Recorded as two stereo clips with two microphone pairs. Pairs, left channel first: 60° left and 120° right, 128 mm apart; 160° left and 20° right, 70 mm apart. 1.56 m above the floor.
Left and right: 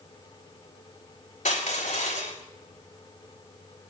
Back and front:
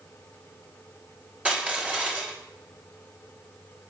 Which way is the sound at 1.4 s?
50° left.